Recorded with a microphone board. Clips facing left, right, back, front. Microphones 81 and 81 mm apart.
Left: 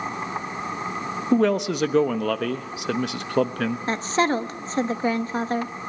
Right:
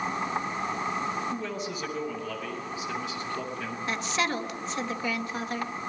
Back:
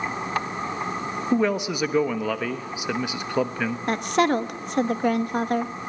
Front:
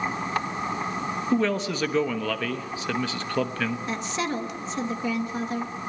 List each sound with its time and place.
1.3 s a man speaking: 105° left, 1.1 m
3.9 s a woman speaking: 145° left, 1.0 m